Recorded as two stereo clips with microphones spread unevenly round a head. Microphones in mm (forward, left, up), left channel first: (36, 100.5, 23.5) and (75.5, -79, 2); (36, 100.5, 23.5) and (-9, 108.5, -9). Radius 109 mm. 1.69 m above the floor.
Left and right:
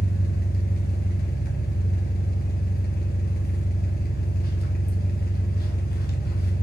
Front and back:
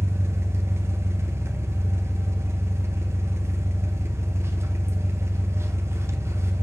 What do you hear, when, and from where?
0.0 s an engine running: 115° left, 1.1 m